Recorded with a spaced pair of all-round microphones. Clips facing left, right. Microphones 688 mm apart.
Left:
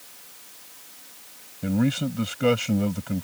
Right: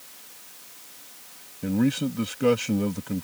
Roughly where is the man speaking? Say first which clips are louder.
Even; centre.